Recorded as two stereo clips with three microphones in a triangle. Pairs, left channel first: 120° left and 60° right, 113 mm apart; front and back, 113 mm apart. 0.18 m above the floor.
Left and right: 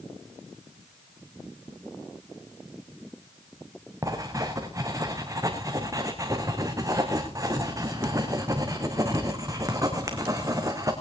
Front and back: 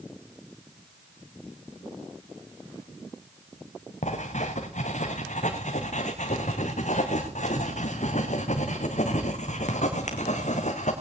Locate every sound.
4.0 s writing: straight ahead, 3.5 m